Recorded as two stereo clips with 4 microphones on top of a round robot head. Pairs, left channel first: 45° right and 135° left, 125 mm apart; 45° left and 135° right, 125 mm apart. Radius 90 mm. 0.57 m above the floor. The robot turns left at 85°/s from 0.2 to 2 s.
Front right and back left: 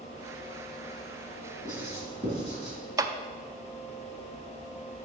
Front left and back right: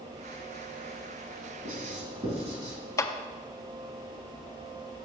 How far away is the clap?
About 0.5 m.